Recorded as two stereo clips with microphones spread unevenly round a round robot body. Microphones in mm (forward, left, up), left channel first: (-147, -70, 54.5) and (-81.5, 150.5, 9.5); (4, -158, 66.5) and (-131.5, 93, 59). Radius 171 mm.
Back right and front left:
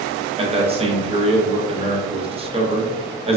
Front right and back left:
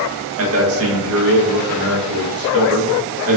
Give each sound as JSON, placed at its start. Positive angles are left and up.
{"t": 0.4, "sound": "a man speaking", "azimuth_deg": 120, "distance_m": 0.9}